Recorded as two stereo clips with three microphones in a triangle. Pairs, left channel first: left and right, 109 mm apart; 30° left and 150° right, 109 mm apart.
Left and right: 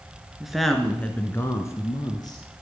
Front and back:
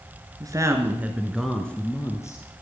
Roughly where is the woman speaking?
Behind.